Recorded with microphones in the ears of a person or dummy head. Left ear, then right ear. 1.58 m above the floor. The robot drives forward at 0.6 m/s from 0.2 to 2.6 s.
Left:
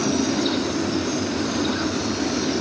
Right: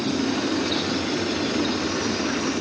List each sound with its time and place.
0.0 s an aircraft: 35° left (ahead or behind)